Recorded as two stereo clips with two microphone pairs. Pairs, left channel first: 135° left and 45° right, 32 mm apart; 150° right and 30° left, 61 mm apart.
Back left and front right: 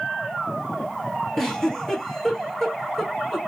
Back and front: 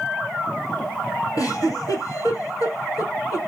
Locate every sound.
1.4 s a giggle: 150° right, 1.2 m